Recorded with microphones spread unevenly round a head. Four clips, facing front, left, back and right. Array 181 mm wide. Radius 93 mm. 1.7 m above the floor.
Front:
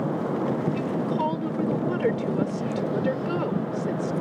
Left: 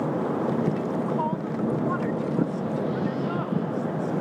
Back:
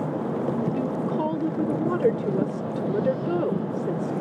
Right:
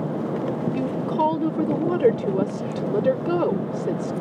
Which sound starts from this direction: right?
A woman speaking, at 0.7 s.